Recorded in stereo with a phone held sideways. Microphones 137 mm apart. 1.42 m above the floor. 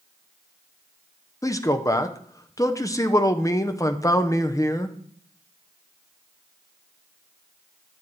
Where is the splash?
I don't hear a splash.